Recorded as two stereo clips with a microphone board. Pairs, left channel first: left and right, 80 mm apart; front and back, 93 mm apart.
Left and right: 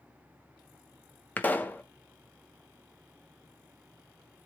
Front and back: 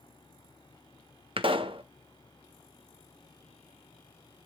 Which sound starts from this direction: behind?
A pop, at 1.4 s.